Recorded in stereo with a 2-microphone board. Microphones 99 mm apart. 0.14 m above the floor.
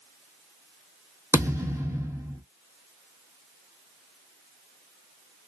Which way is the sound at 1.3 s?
30° right (ahead or behind).